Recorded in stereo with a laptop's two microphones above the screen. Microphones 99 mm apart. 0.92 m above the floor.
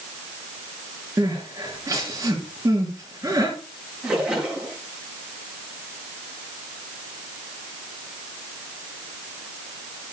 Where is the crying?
35° right (ahead or behind), 5 m.